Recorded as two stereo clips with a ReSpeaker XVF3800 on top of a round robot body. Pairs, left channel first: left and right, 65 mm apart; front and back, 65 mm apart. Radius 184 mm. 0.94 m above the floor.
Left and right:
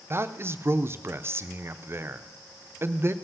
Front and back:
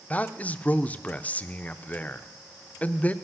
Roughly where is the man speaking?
Ahead right.